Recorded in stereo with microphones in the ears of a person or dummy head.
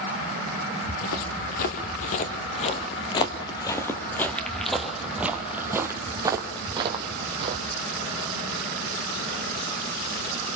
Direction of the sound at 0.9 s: 50° left (ahead or behind).